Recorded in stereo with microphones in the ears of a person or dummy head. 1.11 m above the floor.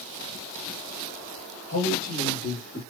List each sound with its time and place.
1.7 s a man speaking: 75° left (ahead or behind), 1.7 m; by 2.8 s 55° left (ahead or behind), 2.5 m